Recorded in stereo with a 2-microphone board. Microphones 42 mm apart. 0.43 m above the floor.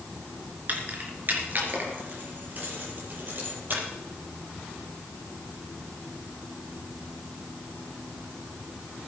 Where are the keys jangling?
40° right (ahead or behind), 3.5 m; by 3.8 s 50° right (ahead or behind), 7.5 m.